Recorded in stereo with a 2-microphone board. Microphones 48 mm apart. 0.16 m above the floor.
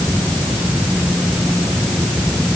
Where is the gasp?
I don't hear a gasp.